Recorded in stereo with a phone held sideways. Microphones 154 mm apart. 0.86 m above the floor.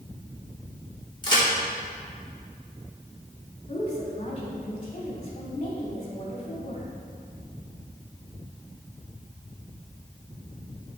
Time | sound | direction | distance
1.2 | a crack | 30° left (ahead or behind) | 3 m
3.7 | a woman speaking | 45° left (ahead or behind) | 2.5 m